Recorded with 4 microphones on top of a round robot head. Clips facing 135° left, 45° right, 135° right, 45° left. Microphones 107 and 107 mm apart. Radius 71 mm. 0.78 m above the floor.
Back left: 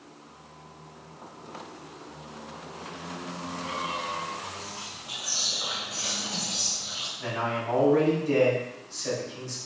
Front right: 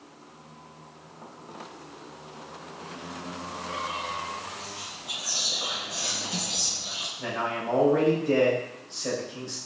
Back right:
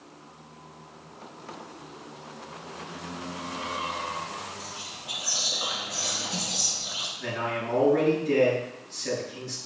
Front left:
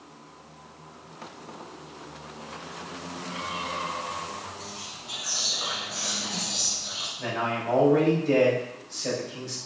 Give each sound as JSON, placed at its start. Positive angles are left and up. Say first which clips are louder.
{"t": 4.6, "sound": "whispering", "louder": "even, even", "azimuth_deg": -65, "distance_m": 1.2}
{"t": 7.2, "sound": "a man speaking", "louder": "even, front left 2 dB", "azimuth_deg": 15, "distance_m": 3.5}